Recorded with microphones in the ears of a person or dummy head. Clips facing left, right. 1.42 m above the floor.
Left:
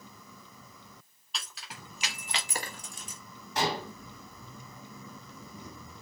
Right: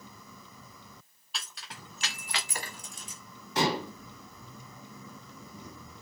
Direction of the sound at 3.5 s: 60° right (ahead or behind).